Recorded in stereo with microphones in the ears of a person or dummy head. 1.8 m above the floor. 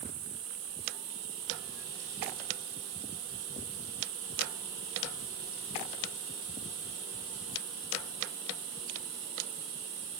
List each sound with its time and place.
0.0 s an insect: 55° right (ahead or behind), 3 m